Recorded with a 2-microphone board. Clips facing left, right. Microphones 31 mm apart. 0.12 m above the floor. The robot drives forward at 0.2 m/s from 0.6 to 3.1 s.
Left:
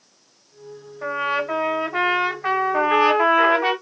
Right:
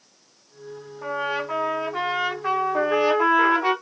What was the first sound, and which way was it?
A trumpet, 40° left (ahead or behind).